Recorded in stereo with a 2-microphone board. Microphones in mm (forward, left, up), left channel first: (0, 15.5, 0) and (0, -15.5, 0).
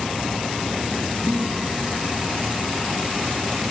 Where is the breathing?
30° right (ahead or behind), 2 m.